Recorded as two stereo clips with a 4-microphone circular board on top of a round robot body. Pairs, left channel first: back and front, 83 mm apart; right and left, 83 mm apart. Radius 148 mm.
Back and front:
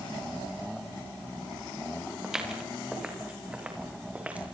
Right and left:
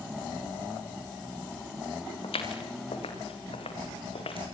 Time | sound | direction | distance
2.2 | footsteps | 85° right | 6.5 m